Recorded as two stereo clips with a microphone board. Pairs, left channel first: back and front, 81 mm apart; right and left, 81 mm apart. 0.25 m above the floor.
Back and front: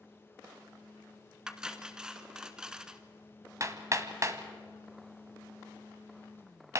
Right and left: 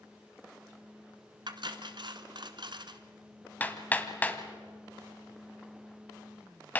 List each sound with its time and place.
1.5 s cutlery clinking: 80° left, 1.4 m
3.6 s hammering: 30° right, 1.6 m